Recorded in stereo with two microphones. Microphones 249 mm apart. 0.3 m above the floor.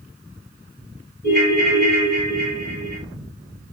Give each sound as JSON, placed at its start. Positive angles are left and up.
{"t": 1.2, "sound": "a ringtone", "side_deg": -40, "distance_m": 1.2}